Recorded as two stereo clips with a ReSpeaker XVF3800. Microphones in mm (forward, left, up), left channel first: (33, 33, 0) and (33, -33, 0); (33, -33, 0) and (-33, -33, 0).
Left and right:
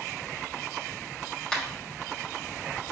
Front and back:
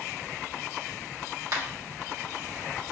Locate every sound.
1.5 s a finger snap: 165° left, 1.4 m